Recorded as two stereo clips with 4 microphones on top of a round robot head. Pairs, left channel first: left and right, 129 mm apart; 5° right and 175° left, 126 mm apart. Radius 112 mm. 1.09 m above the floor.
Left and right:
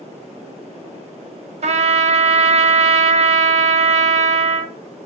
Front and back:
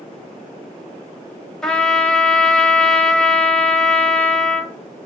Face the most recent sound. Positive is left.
turn(degrees=-90)